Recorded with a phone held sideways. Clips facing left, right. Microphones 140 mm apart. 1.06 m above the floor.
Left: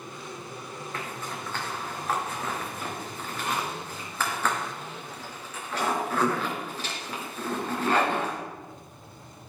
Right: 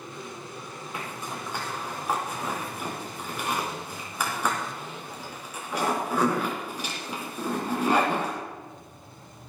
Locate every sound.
0.9 s a zipper: 10° right (ahead or behind), 3 m